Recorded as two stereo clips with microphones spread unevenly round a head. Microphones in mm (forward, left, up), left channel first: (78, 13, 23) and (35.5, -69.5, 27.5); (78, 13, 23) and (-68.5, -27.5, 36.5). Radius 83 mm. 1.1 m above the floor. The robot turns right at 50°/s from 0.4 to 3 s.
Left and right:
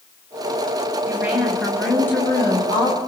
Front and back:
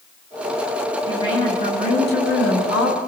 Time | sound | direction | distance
1.1 | a woman speaking | 55° right | 6.5 m